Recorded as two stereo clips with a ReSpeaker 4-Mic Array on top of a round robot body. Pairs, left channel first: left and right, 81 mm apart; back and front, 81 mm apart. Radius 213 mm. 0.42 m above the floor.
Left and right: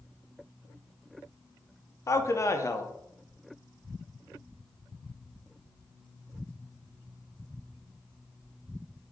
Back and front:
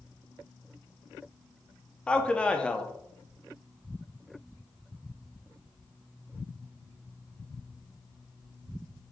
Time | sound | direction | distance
2.1 | a man speaking | 110° left | 0.9 m